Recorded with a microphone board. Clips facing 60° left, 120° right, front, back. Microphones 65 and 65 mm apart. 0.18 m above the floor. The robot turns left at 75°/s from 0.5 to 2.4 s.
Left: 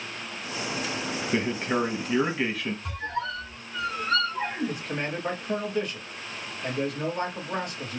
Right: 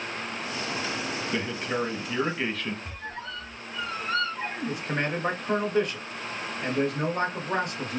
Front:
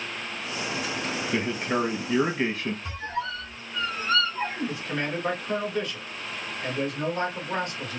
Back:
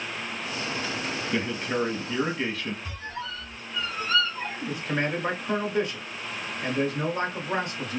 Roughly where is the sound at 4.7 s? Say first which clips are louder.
Right 2 dB, back 2 dB; behind right.